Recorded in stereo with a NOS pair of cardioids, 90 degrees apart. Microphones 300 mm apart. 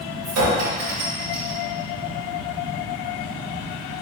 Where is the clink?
60° right, 1.6 m.